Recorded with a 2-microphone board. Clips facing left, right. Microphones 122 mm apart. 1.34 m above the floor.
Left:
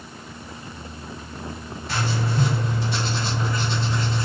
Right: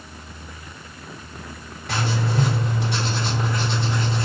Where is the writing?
65° right (ahead or behind), 2 m.